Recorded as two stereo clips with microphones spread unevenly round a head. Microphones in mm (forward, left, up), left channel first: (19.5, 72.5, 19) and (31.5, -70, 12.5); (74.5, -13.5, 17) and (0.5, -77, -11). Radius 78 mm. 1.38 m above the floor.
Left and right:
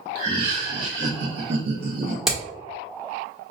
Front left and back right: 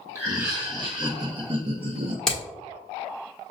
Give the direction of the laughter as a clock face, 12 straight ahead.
3 o'clock.